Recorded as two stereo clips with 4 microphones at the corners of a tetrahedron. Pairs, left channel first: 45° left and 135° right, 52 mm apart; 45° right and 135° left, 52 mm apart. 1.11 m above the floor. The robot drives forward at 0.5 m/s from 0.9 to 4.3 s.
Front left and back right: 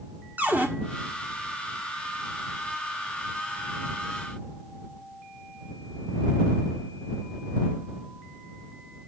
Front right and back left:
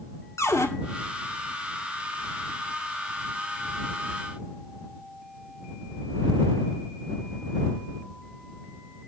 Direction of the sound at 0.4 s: 75° right.